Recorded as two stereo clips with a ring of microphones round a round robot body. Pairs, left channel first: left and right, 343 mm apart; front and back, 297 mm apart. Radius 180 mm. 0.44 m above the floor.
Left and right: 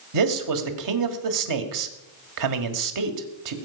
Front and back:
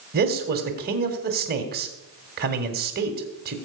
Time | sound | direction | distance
0.1 | a man speaking | 120° right | 2 m